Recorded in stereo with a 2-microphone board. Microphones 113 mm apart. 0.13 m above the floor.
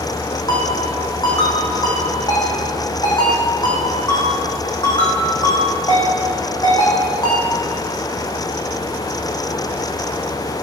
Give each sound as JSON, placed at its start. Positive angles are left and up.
{"t": 0.5, "sound": "a ringtone", "side_deg": 40, "distance_m": 5.0}